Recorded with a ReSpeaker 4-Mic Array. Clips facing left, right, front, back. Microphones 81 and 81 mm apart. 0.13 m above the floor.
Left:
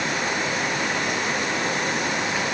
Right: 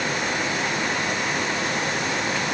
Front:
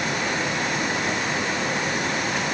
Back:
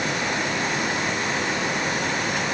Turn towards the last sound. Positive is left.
No sound to turn to.